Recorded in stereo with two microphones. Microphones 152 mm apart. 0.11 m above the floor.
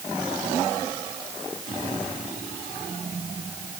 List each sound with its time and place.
Only background noise.